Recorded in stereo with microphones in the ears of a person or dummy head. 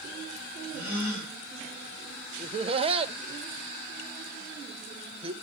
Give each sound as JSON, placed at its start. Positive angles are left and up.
{"t": 0.7, "sound": "a gasp", "side_deg": -15, "distance_m": 9.5}
{"t": 2.4, "sound": "laughter", "side_deg": -35, "distance_m": 0.6}